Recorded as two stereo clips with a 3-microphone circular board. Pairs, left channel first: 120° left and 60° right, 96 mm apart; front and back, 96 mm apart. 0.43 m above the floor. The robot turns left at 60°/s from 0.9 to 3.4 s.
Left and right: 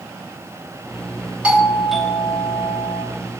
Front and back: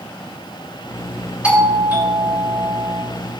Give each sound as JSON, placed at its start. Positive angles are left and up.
{"t": 1.4, "sound": "a doorbell", "azimuth_deg": -120, "distance_m": 1.2}